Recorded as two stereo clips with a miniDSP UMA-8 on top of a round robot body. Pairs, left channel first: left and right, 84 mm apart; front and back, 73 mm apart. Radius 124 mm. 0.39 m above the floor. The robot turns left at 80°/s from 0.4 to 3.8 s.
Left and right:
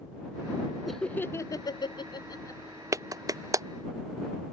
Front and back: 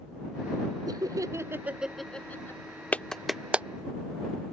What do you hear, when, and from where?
0.9 s laughter: straight behind; by 2.6 s 40° left
2.9 s a clap: 60° right; by 3.7 s 120° right